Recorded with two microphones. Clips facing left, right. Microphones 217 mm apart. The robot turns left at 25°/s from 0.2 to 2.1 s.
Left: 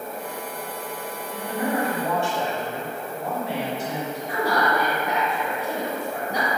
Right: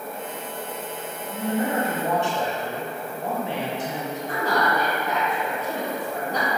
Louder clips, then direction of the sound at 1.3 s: Right 2 dB; 35° right (ahead or behind).